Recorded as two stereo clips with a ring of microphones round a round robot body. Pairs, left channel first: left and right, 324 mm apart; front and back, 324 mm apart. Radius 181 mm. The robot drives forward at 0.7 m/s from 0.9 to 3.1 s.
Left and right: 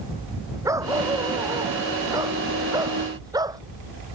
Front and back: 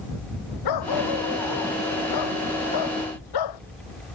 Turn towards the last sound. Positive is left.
turn(degrees=-10)